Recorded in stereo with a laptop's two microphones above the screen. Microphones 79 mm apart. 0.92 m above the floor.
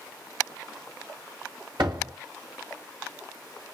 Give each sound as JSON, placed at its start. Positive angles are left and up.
{"t": 1.8, "sound": "a door slam", "side_deg": -85, "distance_m": 2.0}